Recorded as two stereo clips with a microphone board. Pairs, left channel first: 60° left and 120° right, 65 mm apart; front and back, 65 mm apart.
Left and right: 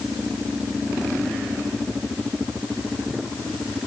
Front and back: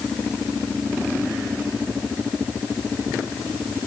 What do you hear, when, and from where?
Only background noise.